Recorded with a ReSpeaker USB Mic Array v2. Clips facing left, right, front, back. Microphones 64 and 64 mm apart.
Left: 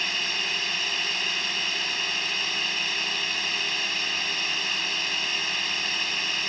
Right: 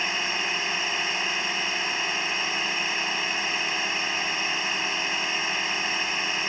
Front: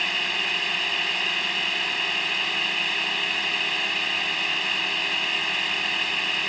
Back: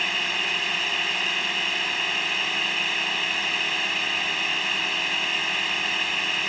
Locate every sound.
0.0 s a drone: 95° right